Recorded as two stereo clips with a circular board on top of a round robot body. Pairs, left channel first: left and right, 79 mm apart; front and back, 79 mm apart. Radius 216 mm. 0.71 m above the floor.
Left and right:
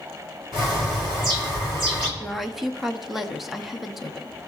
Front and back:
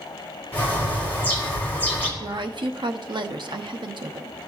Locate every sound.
0.5 s a bird: 70° right, 3.5 m
2.2 s a woman speaking: 175° right, 1.0 m